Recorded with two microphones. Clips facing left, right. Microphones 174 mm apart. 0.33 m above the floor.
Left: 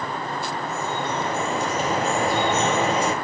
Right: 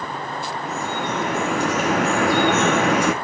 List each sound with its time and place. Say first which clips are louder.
0.7 s dripping: right 3 dB; 75° right (ahead or behind), 3 m